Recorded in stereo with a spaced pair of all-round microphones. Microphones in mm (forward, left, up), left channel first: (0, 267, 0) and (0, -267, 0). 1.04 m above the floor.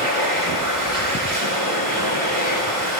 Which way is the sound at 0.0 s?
75° right (ahead or behind).